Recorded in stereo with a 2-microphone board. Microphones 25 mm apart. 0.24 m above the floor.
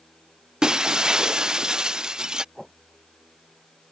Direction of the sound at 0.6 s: 35° right (ahead or behind).